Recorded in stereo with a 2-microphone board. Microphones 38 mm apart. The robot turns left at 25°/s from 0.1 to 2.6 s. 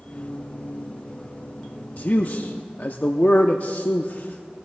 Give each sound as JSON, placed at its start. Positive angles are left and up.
{"t": 2.0, "sound": "a man speaking", "side_deg": 40, "distance_m": 0.7}